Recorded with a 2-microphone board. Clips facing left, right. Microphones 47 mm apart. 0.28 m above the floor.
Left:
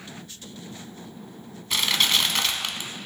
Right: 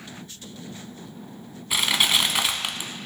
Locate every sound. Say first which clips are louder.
1.7 s crushing: right 1 dB; 15° right (ahead or behind), 0.5 m